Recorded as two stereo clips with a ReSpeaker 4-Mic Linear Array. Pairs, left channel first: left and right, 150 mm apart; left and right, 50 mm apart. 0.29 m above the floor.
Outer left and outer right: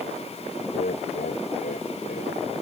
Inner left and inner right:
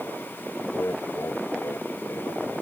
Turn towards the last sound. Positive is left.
turn(degrees=75)  # may be behind; listen again after turning